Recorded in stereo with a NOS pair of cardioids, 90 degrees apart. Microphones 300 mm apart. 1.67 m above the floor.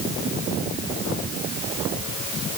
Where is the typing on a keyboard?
No typing on a keyboard in this recording.